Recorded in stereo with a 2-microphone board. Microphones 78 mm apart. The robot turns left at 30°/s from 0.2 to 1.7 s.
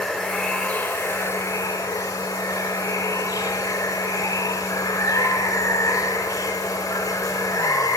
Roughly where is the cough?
No cough in this recording.